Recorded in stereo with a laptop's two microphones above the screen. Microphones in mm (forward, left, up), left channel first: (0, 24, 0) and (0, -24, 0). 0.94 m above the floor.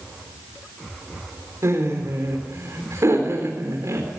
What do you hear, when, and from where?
1.6 s laughter: 75° right (ahead or behind), 3.5 m